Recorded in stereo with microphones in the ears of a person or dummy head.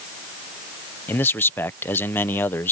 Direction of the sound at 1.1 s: 10° left (ahead or behind).